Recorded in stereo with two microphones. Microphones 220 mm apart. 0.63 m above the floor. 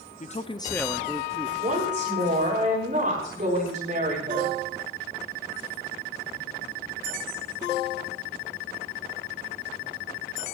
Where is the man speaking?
35° left (ahead or behind), 0.8 m; by 1.5 s 20° right (ahead or behind), 1.0 m.